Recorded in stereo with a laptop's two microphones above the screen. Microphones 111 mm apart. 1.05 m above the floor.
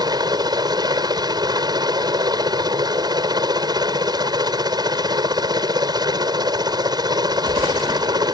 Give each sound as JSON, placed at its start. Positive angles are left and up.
{"t": 0.0, "sound": "a helicopter", "side_deg": -40}